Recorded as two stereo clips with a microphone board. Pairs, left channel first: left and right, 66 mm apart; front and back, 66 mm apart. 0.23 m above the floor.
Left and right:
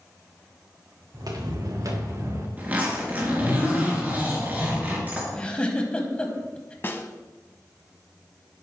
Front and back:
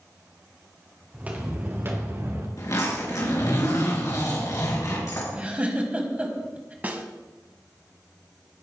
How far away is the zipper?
About 4 m.